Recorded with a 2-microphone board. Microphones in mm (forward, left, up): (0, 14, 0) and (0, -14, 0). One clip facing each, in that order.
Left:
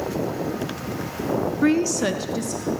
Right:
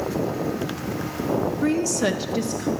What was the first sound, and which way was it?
A woman speaking, 30° left (ahead or behind).